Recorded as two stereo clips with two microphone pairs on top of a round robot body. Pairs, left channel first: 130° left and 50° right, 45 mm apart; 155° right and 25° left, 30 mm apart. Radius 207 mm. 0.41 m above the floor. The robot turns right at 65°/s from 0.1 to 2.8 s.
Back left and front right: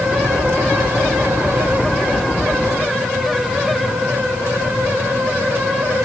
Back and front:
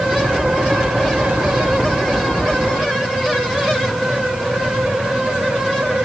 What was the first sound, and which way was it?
Only background noise.